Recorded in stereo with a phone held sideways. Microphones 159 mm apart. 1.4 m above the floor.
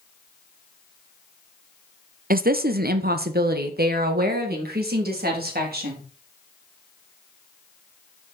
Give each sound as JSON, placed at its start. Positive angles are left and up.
{"t": 2.3, "sound": "a woman speaking", "side_deg": -65, "distance_m": 0.6}